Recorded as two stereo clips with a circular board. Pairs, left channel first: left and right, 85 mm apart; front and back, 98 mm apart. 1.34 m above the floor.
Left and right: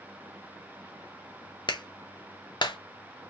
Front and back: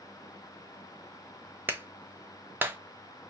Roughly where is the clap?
Left.